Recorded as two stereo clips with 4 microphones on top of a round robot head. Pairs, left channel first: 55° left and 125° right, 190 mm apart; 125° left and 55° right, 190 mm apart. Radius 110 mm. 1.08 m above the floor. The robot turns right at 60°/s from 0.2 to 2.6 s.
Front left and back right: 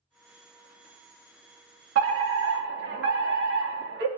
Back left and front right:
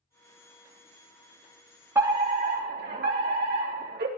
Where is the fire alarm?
135° right, 3 m; by 4.1 s 95° right, 3 m.